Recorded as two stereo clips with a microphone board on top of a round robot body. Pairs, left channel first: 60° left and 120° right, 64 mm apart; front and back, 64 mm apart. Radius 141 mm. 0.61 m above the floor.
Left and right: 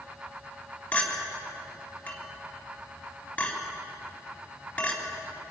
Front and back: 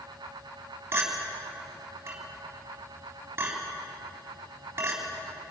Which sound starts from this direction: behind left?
A clink, at 0.9 s.